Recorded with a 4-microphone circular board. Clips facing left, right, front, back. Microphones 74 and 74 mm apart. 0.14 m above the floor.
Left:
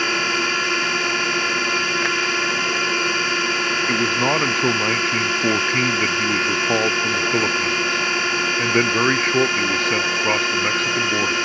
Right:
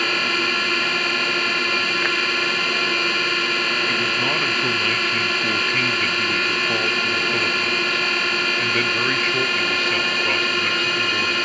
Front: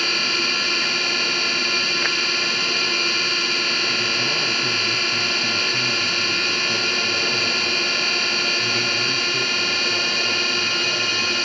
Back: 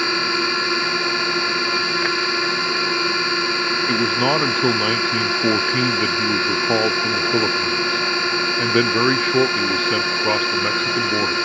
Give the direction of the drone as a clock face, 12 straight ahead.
7 o'clock.